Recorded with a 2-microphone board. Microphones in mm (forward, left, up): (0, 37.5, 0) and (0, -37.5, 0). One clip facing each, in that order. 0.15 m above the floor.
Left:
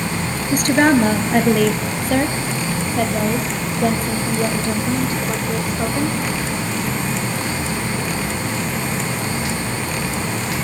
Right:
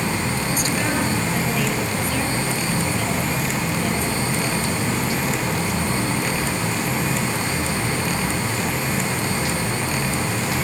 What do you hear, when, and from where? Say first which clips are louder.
0.5 s a woman speaking: left 12 dB; 60° left (ahead or behind), 2 m; by 6.2 s 40° left (ahead or behind), 6 m